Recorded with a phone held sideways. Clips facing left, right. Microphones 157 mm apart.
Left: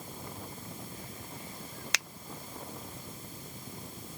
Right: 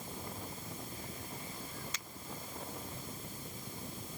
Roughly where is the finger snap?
Left.